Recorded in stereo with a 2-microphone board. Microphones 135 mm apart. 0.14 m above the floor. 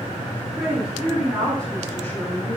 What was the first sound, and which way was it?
A woman speaking, 10° right (ahead or behind).